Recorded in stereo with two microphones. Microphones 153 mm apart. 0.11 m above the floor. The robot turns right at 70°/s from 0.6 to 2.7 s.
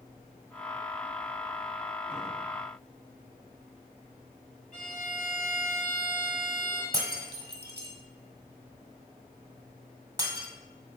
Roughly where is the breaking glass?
Right.